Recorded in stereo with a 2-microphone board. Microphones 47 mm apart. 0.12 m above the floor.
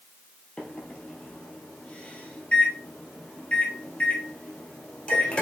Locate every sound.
0.6 s a microwave: 25° left (ahead or behind), 2 m